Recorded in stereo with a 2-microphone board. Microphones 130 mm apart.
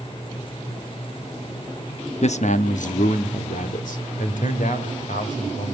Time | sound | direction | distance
2.2 | a man speaking | 55° left (ahead or behind) | 0.7 m